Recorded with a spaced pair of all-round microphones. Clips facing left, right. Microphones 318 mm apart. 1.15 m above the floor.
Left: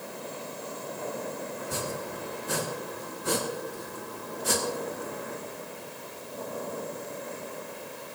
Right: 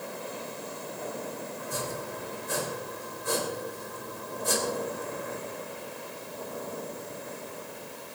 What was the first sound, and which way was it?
Chopping, 75° left (ahead or behind).